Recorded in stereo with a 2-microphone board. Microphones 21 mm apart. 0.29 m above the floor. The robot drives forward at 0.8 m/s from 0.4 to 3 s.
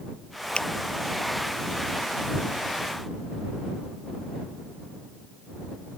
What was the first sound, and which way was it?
A finger snap, 45° left (ahead or behind).